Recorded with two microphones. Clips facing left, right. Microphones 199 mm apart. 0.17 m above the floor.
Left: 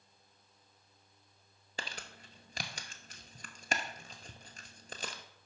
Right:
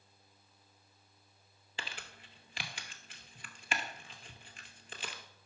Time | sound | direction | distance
1.8 | crumpling | 45° left (ahead or behind) | 0.7 m